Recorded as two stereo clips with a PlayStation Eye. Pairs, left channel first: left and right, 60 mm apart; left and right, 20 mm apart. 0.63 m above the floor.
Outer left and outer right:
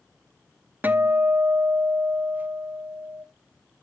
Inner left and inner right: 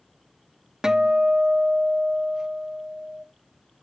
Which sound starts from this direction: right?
A guitar, at 0.8 s.